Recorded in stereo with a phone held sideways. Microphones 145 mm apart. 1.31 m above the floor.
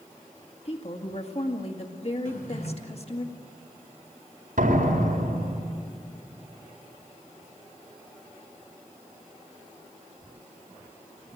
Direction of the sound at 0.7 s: 45° left (ahead or behind).